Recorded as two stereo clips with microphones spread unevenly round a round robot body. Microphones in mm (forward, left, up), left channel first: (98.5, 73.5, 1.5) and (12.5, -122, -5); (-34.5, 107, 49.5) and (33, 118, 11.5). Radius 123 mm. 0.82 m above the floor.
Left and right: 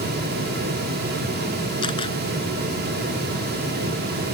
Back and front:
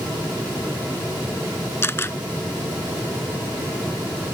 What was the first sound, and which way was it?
A camera shutter, 140° left.